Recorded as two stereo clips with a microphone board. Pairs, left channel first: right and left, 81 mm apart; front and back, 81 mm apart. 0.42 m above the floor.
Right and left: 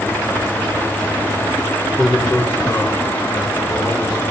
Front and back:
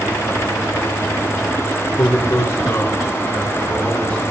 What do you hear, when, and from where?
2.0 s a man speaking: 10° left, 1.0 m; by 4.3 s 70° right, 3 m